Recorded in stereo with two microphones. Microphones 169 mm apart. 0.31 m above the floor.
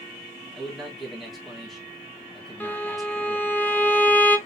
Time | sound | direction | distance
0.6 | a man speaking | centre (ahead or behind) | 2.5 m
2.6 | a violin | 10° left (ahead or behind) | 0.9 m